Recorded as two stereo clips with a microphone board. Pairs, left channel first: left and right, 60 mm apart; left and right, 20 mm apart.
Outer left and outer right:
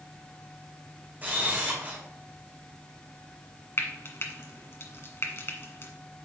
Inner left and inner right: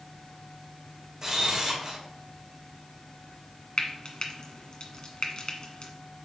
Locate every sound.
1.2 s a camera shutter: 30° right (ahead or behind), 3 m
3.8 s frying: 45° left (ahead or behind), 1.6 m